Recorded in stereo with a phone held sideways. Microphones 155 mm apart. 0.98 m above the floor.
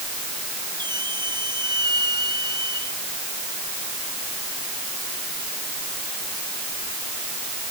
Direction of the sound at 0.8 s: 30° right (ahead or behind).